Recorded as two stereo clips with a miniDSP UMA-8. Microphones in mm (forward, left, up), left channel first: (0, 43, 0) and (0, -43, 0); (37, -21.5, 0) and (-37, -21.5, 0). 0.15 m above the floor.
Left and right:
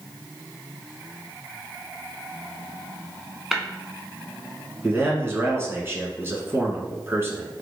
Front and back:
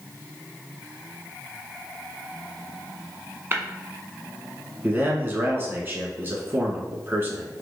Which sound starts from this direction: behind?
Tapping, at 3.5 s.